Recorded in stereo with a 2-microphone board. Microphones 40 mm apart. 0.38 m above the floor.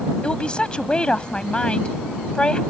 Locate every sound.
0.2 s a woman speaking: 25° left (ahead or behind)